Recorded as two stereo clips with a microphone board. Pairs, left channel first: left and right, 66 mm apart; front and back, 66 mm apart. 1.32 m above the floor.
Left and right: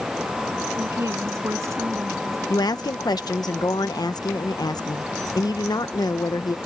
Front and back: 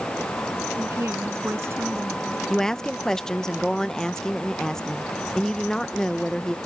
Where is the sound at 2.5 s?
80° left.